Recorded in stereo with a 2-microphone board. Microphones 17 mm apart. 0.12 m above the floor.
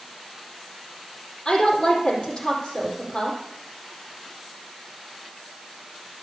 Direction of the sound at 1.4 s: 65° left (ahead or behind).